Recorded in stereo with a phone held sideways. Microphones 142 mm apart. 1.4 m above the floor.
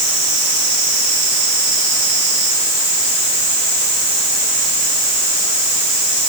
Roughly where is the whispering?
I don't hear whispering.